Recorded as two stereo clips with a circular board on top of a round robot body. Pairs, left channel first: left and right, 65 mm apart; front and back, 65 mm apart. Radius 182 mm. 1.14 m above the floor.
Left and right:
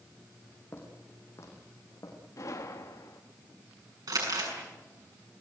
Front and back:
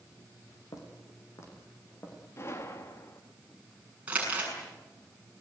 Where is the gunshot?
50° left, 0.7 m.